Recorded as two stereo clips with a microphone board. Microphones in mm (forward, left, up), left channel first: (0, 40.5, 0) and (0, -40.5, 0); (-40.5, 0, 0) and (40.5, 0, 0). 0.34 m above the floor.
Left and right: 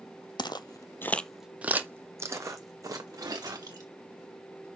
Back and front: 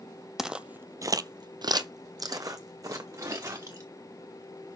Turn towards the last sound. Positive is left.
turn(degrees=-50)